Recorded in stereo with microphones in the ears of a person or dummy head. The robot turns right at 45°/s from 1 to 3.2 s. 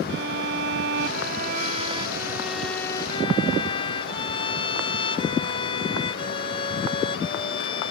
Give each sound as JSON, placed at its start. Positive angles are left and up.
{"t": 0.1, "sound": "a violin", "azimuth_deg": -70}